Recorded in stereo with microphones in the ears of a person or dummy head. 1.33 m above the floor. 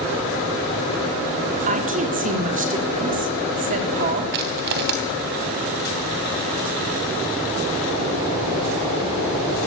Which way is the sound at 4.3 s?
55° right (ahead or behind).